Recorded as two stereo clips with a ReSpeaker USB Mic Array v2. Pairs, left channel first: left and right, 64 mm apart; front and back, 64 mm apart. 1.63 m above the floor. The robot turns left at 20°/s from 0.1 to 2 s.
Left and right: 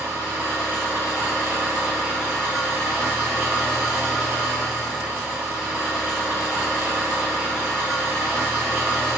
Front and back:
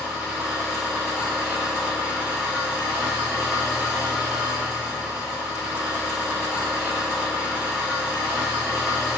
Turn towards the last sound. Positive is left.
turn(degrees=-135)